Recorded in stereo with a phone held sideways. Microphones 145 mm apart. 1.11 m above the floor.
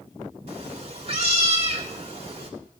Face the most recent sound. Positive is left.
turn(degrees=-45)  # may be behind; listen again after turning